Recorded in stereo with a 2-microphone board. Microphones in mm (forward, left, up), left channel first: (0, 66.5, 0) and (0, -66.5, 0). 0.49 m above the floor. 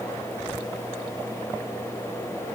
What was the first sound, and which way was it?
Only background noise.